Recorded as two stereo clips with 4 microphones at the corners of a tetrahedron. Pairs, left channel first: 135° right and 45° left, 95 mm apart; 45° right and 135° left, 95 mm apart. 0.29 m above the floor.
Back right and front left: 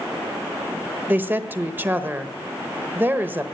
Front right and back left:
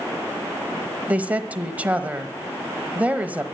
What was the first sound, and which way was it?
A woman speaking, 85° left.